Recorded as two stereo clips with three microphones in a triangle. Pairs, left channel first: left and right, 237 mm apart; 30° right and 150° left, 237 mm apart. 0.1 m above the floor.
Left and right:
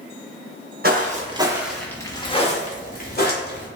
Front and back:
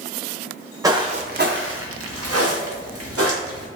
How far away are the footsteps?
About 0.7 m.